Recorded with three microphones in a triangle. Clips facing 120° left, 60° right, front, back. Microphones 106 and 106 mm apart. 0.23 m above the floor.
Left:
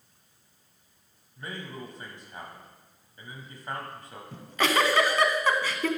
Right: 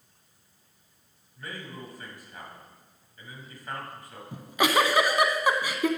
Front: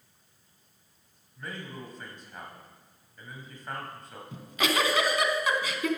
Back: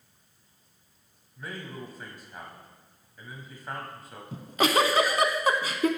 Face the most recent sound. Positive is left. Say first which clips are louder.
# right 2 dB, back 5 dB
turn(degrees=-135)